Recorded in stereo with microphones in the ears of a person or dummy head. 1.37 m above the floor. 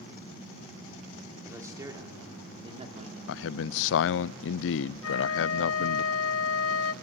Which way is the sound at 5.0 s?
70° left (ahead or behind).